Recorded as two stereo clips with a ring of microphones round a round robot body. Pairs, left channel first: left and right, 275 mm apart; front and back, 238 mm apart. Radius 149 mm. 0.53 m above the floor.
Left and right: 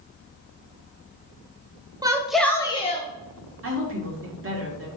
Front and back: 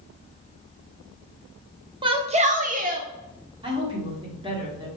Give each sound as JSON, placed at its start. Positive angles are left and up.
{"t": 2.0, "sound": "a shout", "azimuth_deg": -145, "distance_m": 0.7}
{"t": 3.6, "sound": "a woman speaking", "azimuth_deg": -115, "distance_m": 1.7}